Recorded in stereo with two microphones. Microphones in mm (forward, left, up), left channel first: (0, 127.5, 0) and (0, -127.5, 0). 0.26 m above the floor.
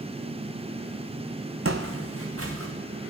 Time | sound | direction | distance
1.6 | footsteps | 60° right (ahead or behind) | 0.9 m